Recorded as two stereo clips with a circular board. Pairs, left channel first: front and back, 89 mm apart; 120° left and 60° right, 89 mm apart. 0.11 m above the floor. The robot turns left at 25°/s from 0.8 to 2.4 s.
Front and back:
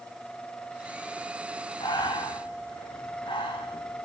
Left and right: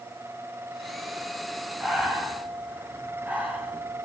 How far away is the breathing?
About 3 m.